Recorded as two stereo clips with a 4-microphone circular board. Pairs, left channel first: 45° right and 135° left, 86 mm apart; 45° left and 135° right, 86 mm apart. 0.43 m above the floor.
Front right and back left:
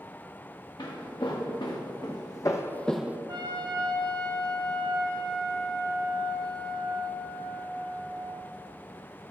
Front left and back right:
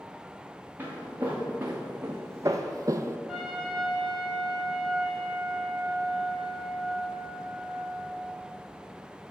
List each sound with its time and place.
0.8 s footsteps: 65° right, 2.5 m; by 3.2 s 175° right, 0.5 m
3.3 s a trumpet: 130° left, 1.6 m